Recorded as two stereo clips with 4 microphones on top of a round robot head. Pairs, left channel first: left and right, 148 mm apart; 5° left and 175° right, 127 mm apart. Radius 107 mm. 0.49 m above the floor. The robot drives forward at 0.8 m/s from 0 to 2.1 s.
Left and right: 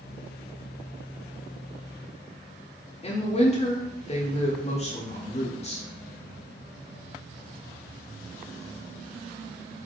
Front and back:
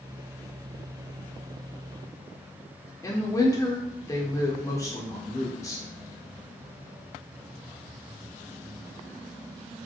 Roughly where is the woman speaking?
Ahead left.